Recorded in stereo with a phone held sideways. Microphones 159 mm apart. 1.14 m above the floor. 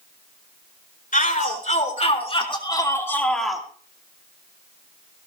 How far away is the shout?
About 4.5 m.